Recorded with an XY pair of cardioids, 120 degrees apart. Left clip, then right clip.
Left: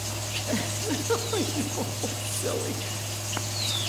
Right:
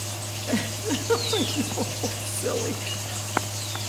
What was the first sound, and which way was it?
A giggle, 10° right.